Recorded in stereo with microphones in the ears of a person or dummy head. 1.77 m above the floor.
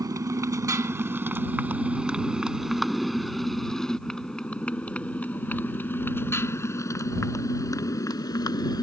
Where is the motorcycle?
15° right (ahead or behind); by 8.8 s 25° left (ahead or behind).